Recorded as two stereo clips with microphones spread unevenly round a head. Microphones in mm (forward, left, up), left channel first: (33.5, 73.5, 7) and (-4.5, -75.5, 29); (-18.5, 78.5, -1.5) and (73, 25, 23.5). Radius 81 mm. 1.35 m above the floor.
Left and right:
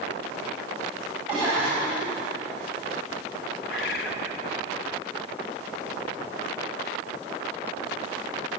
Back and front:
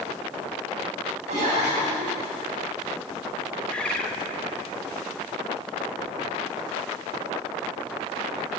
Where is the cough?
25° right, 8.5 m.